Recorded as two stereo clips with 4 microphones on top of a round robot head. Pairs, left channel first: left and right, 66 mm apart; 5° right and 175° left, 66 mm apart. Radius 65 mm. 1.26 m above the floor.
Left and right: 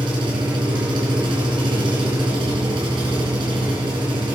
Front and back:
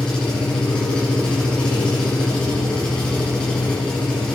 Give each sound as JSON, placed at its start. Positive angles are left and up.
{"t": 0.0, "sound": "an engine running", "azimuth_deg": -85, "distance_m": 6.5}